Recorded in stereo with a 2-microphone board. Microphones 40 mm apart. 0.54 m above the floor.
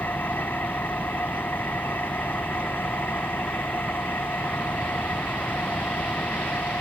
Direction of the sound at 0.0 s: 60° left (ahead or behind).